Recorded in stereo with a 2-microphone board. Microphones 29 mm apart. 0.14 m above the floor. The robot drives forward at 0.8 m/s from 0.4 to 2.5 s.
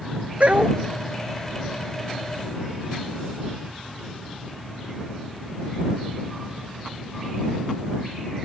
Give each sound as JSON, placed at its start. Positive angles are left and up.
{"t": 0.4, "sound": "a dog barking", "side_deg": -55}